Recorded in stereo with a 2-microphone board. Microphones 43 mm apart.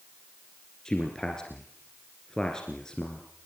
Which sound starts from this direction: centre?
A man speaking, at 0.8 s.